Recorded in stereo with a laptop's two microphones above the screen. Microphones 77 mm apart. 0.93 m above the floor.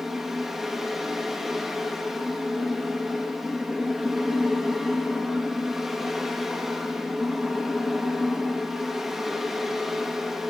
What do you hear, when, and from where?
0.0 s a fan: 5° right (ahead or behind), 1.0 m